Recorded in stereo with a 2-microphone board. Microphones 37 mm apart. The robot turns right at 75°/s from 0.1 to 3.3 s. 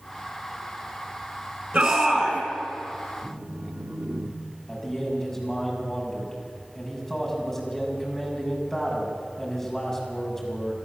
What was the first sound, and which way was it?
A shout, 20° right.